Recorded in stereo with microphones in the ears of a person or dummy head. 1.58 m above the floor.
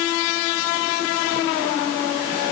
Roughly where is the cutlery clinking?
No cutlery clinking in this recording.